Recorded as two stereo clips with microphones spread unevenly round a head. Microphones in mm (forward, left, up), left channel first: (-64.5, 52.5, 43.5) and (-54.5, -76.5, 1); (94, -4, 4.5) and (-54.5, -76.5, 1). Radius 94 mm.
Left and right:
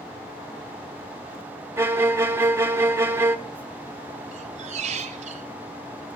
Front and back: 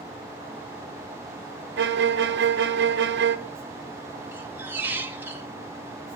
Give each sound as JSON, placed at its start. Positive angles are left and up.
{"t": 1.8, "sound": "a violin", "azimuth_deg": -155, "distance_m": 1.5}
{"t": 4.3, "sound": "a squeak", "azimuth_deg": -90, "distance_m": 1.6}